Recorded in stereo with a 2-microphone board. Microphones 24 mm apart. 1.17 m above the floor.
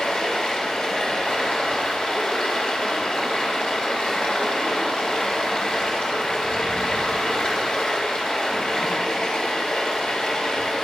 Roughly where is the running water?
Left.